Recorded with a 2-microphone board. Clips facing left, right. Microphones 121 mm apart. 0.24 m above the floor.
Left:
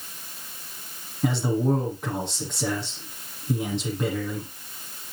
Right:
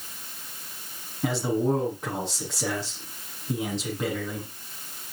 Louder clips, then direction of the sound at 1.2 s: Left 1 dB; centre (ahead or behind).